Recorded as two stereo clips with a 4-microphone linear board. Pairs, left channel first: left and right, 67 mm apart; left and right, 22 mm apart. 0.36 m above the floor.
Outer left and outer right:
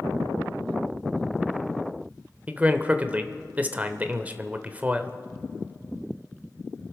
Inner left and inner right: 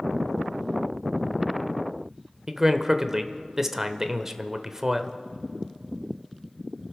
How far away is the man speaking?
About 0.9 m.